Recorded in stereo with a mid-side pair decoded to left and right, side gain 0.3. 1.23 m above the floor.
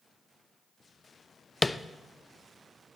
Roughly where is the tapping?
Ahead left.